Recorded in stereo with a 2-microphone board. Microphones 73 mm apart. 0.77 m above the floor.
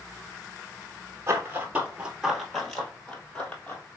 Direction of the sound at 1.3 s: 35° right (ahead or behind).